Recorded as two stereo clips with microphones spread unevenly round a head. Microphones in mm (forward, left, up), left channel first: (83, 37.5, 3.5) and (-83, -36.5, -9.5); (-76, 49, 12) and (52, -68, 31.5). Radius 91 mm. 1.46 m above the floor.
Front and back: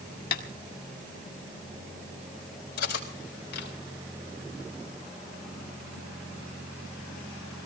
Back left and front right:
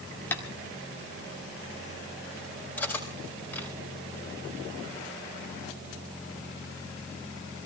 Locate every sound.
0.3 s tapping: 55° left, 1.8 m
2.8 s cutlery clinking: 55° left, 4 m